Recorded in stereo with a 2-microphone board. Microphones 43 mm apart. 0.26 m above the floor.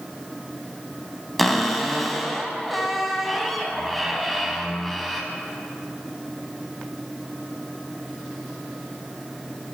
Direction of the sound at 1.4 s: Centre (ahead or behind).